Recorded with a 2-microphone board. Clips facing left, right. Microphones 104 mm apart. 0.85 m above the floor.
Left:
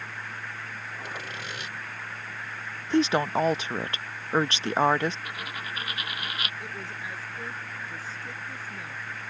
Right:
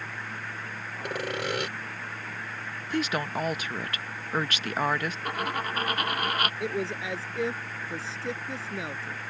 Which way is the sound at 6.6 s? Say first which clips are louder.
Right 8 dB; 75° right (ahead or behind).